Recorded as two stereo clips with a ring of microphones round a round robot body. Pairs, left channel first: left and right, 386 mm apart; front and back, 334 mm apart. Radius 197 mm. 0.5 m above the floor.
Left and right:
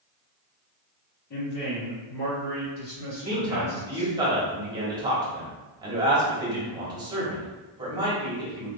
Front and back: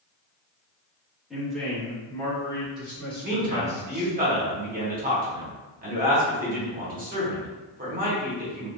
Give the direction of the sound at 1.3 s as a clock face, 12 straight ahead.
9 o'clock.